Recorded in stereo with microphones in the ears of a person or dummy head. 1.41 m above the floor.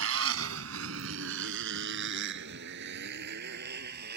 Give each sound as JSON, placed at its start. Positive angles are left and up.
{"t": 0.0, "sound": "a motorcycle", "side_deg": -75}